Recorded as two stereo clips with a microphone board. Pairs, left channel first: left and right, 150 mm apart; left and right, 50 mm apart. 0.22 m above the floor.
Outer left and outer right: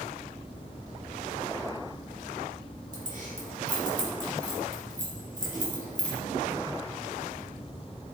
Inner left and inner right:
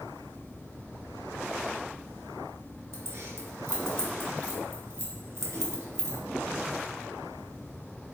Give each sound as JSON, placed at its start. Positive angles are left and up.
{"t": 2.9, "sound": "keys jangling", "side_deg": -65, "distance_m": 2.0}